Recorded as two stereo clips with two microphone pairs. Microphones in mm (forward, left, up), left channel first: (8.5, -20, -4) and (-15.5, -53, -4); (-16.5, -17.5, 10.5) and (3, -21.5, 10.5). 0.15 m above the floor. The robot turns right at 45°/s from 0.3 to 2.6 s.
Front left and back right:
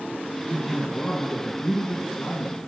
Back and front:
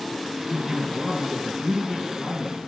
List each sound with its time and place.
0.5 s a man speaking: 35° right, 2.5 m; by 2.7 s 60° left, 2.5 m